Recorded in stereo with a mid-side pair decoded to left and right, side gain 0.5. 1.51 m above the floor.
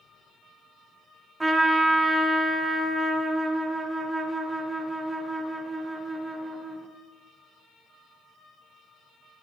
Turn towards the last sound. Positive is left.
turn(degrees=-20)